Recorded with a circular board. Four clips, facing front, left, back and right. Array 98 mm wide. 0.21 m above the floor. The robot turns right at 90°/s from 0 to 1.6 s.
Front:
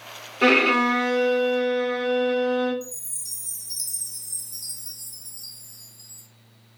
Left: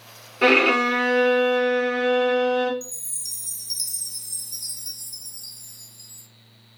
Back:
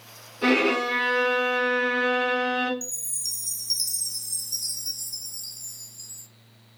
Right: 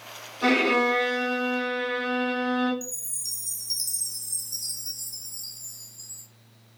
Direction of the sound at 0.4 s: 50° left.